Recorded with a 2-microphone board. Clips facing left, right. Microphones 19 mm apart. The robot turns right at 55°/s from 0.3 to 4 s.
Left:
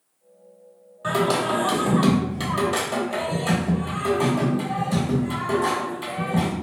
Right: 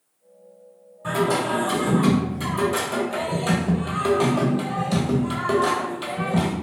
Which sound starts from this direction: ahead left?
Singing, at 1.0 s.